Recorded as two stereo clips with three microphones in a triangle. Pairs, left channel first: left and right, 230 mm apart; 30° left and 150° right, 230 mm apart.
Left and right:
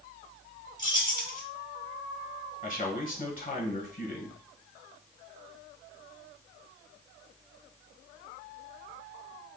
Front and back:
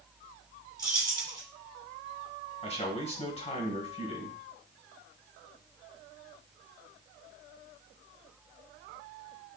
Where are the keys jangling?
140° left, 1.1 m.